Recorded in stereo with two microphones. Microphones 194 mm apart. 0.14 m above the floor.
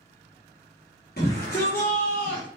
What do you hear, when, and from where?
1.2 s a shout: 50° left (ahead or behind), 3 m